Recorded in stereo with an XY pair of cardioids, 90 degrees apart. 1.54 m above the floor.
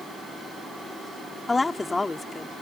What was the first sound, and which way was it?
A woman speaking, 25° left.